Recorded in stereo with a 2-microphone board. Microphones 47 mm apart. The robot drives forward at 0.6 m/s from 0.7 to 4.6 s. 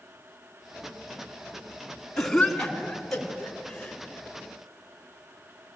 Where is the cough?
10° left (ahead or behind), 3.5 m.